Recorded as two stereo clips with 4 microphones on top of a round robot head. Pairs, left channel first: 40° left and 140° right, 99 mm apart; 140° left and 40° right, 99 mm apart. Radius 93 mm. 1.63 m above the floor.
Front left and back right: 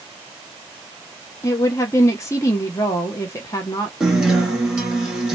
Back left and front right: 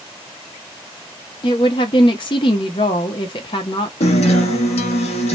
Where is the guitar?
135° left, 1.6 m.